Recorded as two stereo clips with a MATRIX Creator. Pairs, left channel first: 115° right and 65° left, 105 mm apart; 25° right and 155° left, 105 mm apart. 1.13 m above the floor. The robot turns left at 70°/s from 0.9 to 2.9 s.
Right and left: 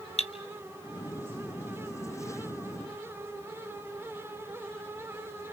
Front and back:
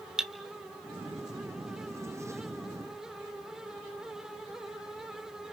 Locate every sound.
0.2 s cutlery clinking: 120° right, 1.0 m